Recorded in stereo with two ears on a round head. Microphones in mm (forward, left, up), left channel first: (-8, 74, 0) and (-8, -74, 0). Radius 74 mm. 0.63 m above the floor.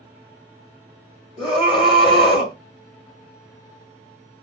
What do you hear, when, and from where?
1.4 s a scream: 30° left (ahead or behind), 1.7 m